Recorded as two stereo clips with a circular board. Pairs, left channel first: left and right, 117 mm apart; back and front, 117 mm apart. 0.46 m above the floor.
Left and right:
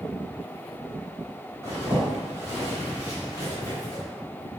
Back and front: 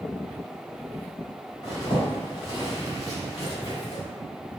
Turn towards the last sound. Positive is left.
turn(degrees=140)